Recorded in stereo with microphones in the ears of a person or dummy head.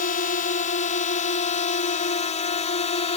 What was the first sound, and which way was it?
A drone, 40° left (ahead or behind).